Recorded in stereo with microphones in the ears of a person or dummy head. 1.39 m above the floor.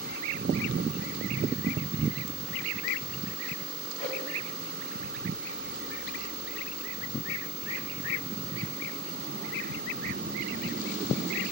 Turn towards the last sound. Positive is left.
turn(degrees=0)  # may be behind; listen again after turning